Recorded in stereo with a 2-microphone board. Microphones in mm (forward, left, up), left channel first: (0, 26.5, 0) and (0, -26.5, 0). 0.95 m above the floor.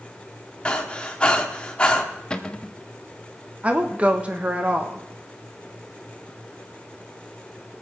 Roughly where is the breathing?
Centre.